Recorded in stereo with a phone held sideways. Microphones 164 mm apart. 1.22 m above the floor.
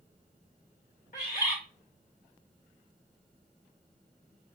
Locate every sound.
1.1 s a bird: 60° left (ahead or behind), 1.8 m